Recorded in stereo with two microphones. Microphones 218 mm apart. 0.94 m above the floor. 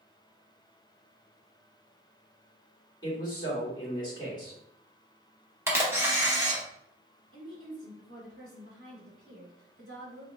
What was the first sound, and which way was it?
A man speaking, 20° left (ahead or behind).